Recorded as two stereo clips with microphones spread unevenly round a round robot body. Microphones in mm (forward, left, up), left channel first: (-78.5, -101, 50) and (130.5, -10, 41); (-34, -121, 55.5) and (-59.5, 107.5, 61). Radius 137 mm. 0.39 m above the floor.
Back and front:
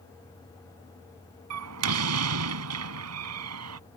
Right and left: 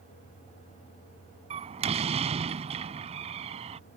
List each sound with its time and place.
1.5 s a door slam: 30° left